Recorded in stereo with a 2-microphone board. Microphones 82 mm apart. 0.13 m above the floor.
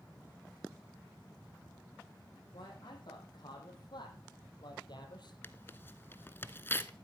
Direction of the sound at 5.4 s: 30° left (ahead or behind).